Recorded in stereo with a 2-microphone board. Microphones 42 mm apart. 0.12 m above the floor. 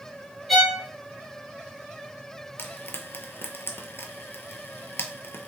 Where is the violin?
Centre (ahead or behind), 0.8 m.